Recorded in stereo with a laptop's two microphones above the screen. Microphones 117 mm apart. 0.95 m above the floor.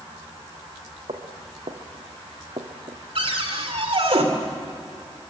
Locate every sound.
1.1 s footsteps: 70° right (ahead or behind), 3 m; by 3.0 s 65° right (ahead or behind), 2 m
3.1 s a cupboard door: 60° right (ahead or behind), 2.5 m